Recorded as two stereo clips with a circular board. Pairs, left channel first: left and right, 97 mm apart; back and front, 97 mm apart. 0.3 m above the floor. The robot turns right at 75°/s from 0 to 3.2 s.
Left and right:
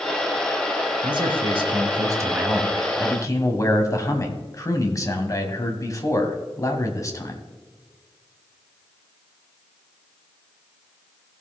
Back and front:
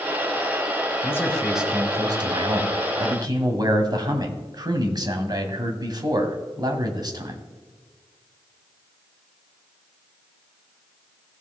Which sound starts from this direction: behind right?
A man speaking, at 1.0 s.